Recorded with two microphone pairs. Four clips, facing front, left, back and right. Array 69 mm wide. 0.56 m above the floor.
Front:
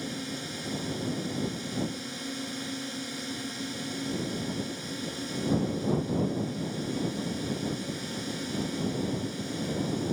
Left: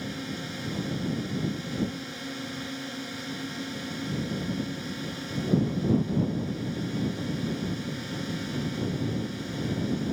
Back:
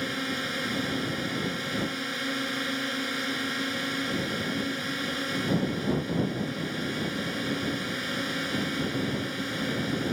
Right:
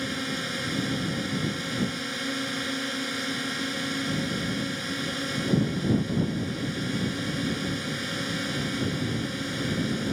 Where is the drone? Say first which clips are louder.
Right 4 dB, back 5 dB; 150° right.